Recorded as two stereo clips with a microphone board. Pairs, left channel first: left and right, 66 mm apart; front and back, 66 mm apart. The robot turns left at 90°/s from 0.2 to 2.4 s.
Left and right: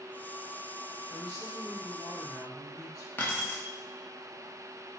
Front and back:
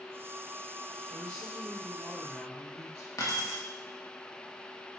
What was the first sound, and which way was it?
A woman speaking, 165° right.